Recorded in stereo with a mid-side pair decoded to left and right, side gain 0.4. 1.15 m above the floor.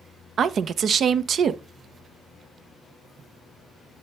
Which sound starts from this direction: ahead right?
A woman speaking, at 0.4 s.